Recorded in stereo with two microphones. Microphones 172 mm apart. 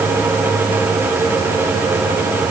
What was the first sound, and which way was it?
Only background noise.